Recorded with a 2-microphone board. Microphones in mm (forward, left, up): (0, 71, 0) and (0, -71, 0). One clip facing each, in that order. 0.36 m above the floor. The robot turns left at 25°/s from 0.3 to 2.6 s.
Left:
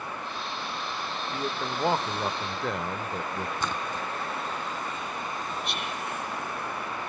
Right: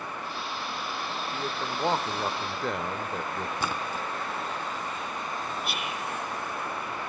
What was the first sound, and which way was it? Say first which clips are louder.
A man speaking: left 3 dB; 10° left (ahead or behind).